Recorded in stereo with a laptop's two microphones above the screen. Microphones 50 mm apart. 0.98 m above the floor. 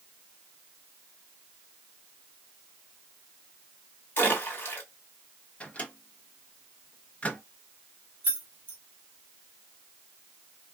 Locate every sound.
4.2 s a splash: 40° left (ahead or behind), 1.7 m
5.6 s a microwave: 25° left (ahead or behind), 0.9 m
8.2 s keys jangling: 40° right (ahead or behind), 0.7 m